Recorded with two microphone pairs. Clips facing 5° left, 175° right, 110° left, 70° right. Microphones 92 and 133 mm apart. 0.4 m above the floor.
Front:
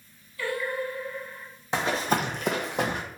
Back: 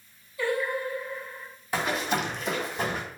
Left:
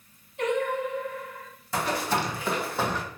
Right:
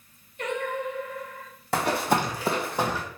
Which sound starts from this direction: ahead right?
Running footsteps, at 1.7 s.